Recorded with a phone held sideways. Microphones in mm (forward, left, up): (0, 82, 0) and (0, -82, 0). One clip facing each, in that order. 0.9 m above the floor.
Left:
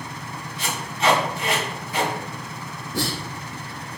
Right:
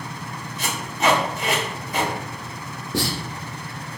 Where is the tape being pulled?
45° right (ahead or behind), 1.2 m.